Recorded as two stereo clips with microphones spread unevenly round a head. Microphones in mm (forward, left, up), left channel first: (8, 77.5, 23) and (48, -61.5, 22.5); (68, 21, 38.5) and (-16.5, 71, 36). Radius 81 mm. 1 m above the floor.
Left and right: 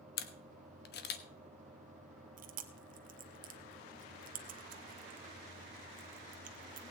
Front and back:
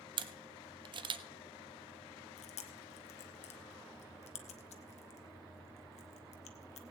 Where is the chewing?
45° right, 1.1 m.